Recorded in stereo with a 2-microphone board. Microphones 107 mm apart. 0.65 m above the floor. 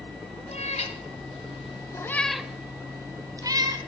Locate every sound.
0.5 s a cat meowing: 80° left, 1.6 m; by 3.8 s 35° right (ahead or behind), 2 m